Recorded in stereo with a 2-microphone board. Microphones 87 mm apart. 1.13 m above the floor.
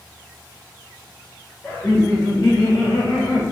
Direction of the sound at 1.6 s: 35° left (ahead or behind).